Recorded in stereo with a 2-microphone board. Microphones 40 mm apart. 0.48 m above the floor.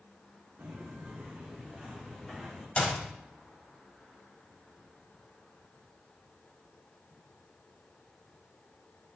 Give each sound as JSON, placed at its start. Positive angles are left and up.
{"t": 0.6, "sound": "footsteps", "side_deg": -30, "distance_m": 2.5}
{"t": 2.8, "sound": "a clap", "side_deg": 30, "distance_m": 1.8}